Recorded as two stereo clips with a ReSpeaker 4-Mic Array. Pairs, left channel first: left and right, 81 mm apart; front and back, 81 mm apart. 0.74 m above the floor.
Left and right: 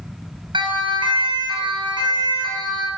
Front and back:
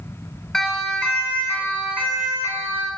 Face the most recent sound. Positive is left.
turn(degrees=-55)